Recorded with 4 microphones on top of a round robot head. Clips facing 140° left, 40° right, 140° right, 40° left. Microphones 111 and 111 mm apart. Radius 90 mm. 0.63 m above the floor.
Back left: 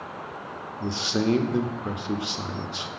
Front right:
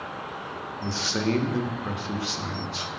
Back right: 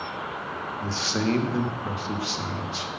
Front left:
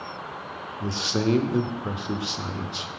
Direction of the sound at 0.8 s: 90° left.